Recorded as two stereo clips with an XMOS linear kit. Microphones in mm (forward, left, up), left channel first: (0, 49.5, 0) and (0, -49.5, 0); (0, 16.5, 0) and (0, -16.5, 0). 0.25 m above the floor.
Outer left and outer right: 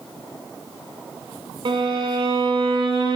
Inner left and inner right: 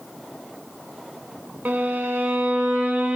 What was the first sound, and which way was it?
A violin, 55° right (ahead or behind).